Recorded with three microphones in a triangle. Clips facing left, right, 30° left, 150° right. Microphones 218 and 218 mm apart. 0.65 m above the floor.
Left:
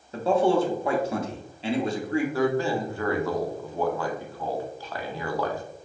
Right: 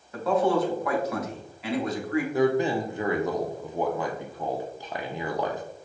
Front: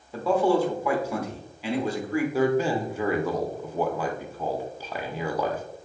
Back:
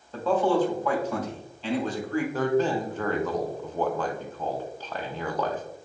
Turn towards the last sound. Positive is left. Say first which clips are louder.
# right 5 dB, front 1 dB
turn(degrees=-40)